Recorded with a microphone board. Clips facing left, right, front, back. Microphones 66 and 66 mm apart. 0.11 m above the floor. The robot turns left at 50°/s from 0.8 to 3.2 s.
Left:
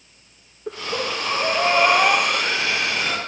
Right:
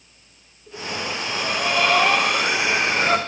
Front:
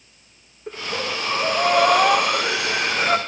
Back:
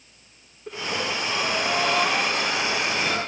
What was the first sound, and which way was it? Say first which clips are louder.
Breathing: left 3 dB, front 1 dB; 75° left.